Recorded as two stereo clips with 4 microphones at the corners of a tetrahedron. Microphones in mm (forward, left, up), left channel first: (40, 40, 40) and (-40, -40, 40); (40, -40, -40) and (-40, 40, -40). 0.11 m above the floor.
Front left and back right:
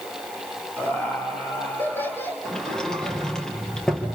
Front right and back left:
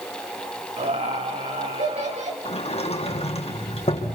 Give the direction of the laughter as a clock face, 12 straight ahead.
8 o'clock.